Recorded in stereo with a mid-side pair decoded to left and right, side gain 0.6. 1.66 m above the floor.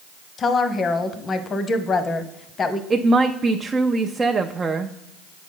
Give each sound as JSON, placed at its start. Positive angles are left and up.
{"t": 0.4, "sound": "a woman speaking", "azimuth_deg": 35, "distance_m": 0.8}
{"t": 2.9, "sound": "a woman speaking", "azimuth_deg": -25, "distance_m": 0.5}